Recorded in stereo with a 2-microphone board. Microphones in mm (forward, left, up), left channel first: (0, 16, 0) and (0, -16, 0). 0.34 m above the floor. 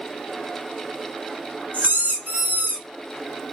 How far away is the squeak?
About 1.0 m.